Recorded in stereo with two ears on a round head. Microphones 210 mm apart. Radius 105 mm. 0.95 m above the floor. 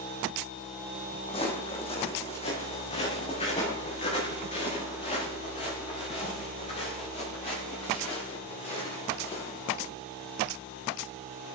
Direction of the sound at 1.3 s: 25° left (ahead or behind).